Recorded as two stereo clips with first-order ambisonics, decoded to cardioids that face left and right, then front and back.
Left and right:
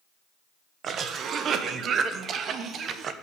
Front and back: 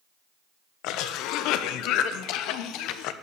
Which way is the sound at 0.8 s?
30° right.